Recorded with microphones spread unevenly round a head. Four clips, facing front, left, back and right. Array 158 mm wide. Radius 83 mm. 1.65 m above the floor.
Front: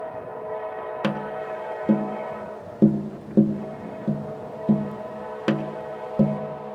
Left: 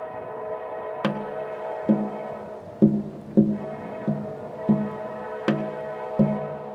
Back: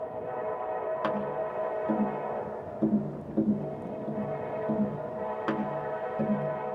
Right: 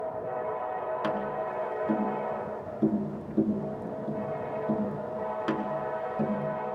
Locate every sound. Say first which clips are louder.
1.0 s tapping: left 2 dB, front 2 dB; 45° left, 1.8 m